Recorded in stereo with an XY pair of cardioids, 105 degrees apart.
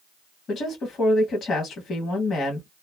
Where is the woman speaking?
55° left, 1.3 m.